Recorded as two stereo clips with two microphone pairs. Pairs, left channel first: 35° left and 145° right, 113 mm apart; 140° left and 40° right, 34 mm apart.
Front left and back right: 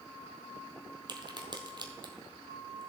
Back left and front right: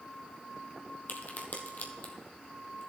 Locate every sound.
1.1 s a crack: 170° left, 1.3 m